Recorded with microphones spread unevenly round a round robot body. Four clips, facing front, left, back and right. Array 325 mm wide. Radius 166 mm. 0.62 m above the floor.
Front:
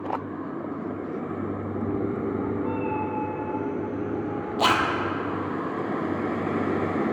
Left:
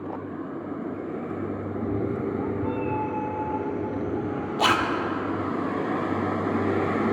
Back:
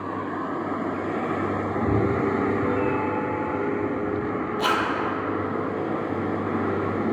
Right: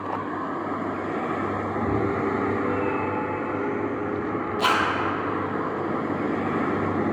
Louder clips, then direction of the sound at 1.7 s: Right 2 dB, back 4 dB; 145° right.